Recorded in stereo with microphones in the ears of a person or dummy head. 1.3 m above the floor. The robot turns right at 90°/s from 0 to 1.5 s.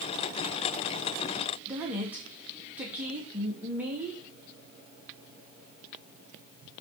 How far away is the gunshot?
No gunshot in this recording.